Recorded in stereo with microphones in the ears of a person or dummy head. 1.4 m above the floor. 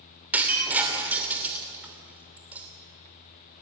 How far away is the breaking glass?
About 2.5 m.